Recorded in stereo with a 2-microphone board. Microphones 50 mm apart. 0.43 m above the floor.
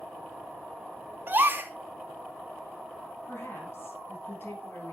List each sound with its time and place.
1.3 s a gasp: 40° right (ahead or behind), 1.1 m
3.3 s a woman speaking: 55° left (ahead or behind), 3.5 m